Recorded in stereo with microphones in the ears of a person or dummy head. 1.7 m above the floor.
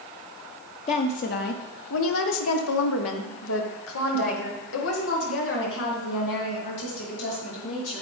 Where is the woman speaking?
40° left (ahead or behind), 0.8 m; by 8.0 s 55° left (ahead or behind), 3.5 m.